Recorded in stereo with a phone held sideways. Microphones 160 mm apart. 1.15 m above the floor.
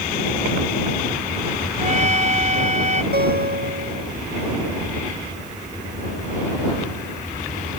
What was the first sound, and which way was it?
A trumpet, 45° right (ahead or behind).